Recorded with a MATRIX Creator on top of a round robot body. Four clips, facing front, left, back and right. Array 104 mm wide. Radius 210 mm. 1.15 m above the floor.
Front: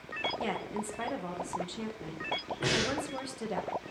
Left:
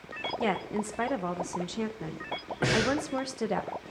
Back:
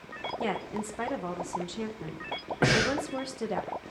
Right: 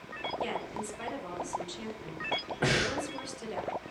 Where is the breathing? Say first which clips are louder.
Left 4 dB, back 6 dB; 170° left, 1.8 m.